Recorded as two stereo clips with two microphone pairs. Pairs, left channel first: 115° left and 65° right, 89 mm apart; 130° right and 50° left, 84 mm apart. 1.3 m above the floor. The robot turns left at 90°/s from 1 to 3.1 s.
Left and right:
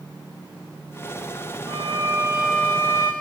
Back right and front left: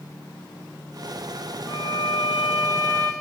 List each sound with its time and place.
1.7 s a violin: 80° right, 4.5 m; by 3.1 s 150° left, 4.5 m